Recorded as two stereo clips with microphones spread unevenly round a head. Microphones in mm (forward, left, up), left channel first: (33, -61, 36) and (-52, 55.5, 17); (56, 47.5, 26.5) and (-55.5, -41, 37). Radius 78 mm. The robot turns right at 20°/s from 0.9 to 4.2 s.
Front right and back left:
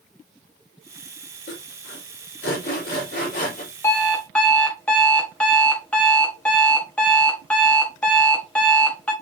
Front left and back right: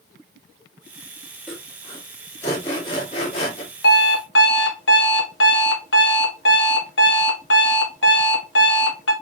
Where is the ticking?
No ticking in this recording.